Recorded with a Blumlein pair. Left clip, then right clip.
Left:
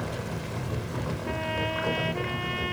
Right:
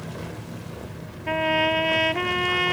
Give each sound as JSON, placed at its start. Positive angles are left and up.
{"t": 1.3, "sound": "a trumpet", "azimuth_deg": -65}